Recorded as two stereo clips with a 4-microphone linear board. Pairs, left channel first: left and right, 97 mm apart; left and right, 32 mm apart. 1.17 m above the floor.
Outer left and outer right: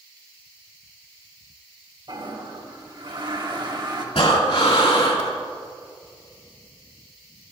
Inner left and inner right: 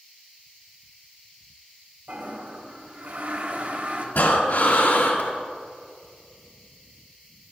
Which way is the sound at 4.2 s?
70° left (ahead or behind).